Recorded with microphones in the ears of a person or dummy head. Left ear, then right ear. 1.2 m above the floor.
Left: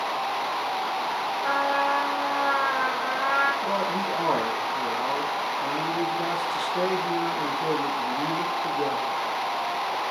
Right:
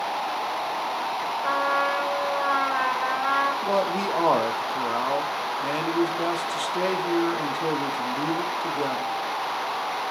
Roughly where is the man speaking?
Right.